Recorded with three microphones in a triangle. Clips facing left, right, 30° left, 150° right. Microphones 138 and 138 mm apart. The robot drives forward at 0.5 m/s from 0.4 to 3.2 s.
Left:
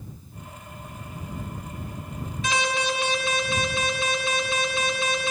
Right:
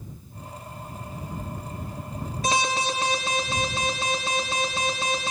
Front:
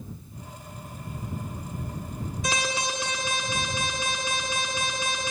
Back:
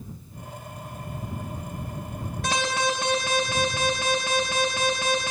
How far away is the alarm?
About 4.5 m.